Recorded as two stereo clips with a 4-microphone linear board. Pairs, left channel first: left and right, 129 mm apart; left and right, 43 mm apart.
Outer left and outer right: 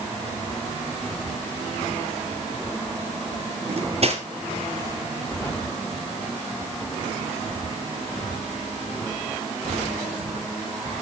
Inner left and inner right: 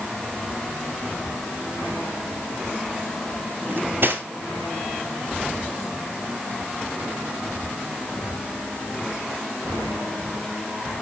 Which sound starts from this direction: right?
Cutlery clinking, at 3.7 s.